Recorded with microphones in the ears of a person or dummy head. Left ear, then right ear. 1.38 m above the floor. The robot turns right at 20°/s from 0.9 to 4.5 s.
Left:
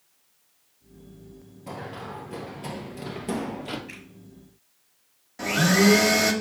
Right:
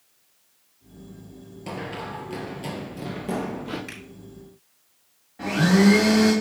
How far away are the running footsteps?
About 1.8 m.